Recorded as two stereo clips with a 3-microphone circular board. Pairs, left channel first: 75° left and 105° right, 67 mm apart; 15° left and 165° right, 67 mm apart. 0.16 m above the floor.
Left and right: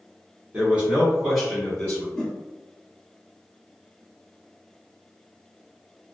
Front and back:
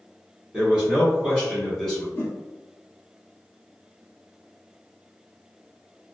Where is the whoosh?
20° left, 1.6 m.